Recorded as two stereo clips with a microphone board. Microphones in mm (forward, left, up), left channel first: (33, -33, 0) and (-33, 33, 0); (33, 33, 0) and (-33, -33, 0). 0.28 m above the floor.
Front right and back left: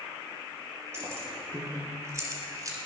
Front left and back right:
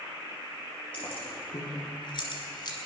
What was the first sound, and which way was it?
Keys jangling, 70° left.